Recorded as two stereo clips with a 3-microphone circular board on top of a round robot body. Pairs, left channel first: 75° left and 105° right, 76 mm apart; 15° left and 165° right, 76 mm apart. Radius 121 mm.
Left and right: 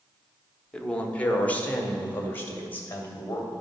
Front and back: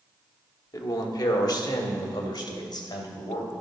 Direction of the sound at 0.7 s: Straight ahead.